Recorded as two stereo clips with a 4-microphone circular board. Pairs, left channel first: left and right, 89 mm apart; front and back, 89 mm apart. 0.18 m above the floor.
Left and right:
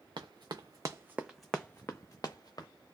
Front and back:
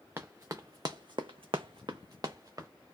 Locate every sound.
0.2 s running footsteps: 115° right, 0.9 m; by 2.7 s 130° left, 1.1 m